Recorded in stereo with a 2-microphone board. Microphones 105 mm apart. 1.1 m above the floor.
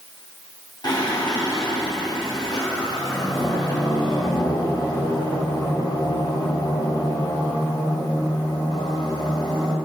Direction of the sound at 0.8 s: 45° left (ahead or behind).